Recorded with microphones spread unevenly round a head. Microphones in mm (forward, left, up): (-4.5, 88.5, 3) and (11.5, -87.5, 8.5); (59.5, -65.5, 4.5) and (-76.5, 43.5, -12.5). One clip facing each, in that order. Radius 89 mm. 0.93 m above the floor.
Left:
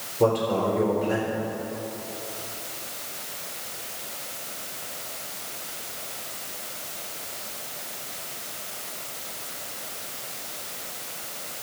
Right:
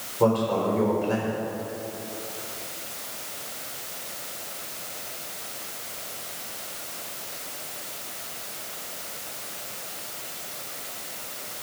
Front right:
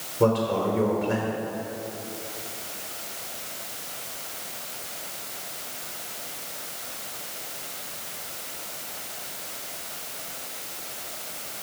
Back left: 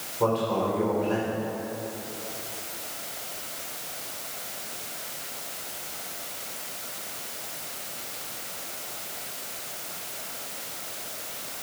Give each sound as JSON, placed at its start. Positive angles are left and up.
{"t": 0.2, "sound": "a man speaking", "azimuth_deg": 25, "distance_m": 3.5}